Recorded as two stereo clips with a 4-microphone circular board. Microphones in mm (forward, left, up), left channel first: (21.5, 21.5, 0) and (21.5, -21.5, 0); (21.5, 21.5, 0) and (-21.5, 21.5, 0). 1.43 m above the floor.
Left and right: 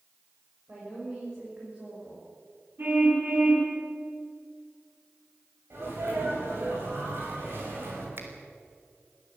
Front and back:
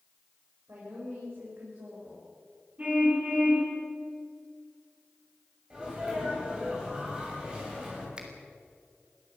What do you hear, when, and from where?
0.7 s a woman speaking: 150° right, 7.5 m
2.8 s a car horn: 125° right, 8 m
5.7 s a sneeze: 110° right, 9.5 m
8.2 s a finger snap: 110° right, 3 m